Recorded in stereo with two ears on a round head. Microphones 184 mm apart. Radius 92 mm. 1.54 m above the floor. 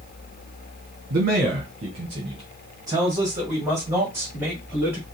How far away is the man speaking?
About 1.1 m.